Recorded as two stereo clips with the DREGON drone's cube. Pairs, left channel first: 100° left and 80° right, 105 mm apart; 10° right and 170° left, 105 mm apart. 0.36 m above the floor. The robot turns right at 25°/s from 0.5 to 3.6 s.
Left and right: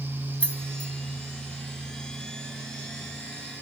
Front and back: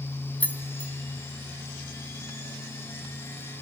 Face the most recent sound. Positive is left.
turn(degrees=120)